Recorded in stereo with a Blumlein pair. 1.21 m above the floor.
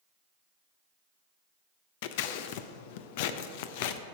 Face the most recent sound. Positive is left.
turn(degrees=50)